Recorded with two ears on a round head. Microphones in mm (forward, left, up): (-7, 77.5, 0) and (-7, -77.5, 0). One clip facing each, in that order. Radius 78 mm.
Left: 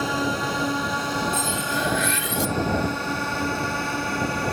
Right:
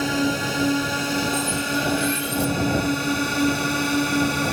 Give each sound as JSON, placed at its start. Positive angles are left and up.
{"t": 0.0, "sound": "a drone", "side_deg": -25}
{"t": 1.3, "sound": "cutlery clinking", "side_deg": 10}